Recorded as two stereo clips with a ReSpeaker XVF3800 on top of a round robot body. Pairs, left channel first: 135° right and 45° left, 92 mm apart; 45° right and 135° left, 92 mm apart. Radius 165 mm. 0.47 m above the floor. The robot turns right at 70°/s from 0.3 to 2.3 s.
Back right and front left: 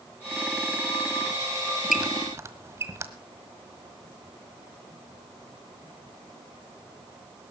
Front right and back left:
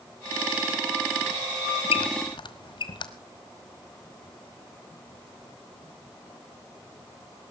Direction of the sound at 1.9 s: 40° right.